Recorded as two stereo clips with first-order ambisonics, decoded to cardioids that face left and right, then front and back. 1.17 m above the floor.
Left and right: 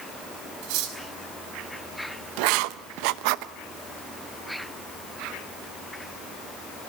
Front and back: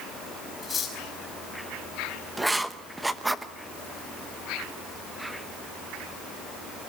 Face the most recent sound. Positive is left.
turn(degrees=-95)